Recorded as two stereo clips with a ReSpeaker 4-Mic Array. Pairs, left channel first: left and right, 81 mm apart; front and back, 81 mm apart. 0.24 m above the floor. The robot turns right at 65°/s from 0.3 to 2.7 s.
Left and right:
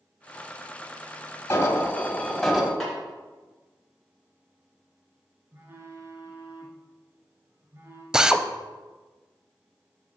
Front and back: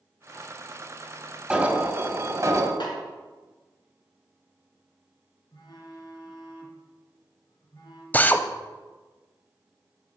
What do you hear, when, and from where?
1.5 s an alarm: 115° left, 1.2 m; by 2.7 s 170° right, 1.2 m
2.8 s a snare drum: 5° left, 3 m
5.5 s a phone buzzing: 30° right, 1.9 m
8.1 s a drill: 25° right, 0.5 m